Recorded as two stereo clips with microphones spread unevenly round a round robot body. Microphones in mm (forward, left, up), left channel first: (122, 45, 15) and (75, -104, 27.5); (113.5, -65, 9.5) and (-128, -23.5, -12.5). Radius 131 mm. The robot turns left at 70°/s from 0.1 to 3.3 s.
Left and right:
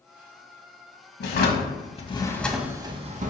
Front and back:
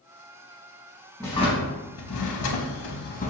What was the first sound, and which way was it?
A drawer, 75° left.